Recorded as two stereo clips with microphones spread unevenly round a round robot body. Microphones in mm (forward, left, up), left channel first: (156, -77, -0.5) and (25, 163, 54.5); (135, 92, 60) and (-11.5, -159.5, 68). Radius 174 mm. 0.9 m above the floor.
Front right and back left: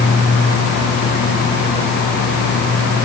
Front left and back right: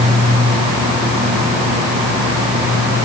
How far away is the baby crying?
I don't hear a baby crying.